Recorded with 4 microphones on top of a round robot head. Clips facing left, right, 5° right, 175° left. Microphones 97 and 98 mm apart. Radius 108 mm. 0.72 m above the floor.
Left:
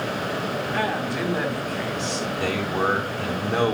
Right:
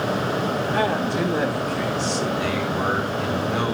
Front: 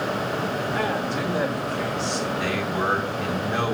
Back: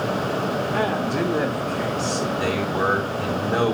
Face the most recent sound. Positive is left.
turn(degrees=135)